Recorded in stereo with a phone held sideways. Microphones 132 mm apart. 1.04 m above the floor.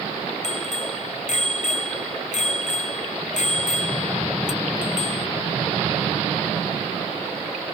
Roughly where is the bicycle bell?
Left.